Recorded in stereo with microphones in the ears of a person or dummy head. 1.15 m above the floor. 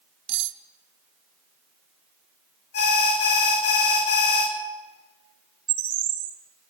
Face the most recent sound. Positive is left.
turn(degrees=-55)  # may be behind; listen again after turning